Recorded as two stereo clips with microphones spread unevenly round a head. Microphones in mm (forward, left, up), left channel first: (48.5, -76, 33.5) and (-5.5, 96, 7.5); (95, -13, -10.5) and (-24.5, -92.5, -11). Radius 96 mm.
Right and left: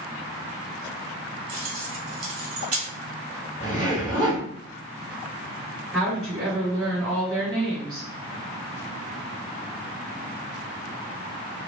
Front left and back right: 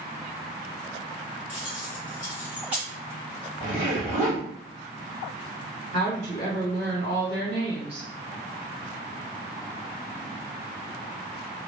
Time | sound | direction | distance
1.5 | keys jangling | 130° left | 1.3 m
3.6 | a zipper | 155° right | 1.8 m
5.9 | a woman speaking | 160° right | 1.7 m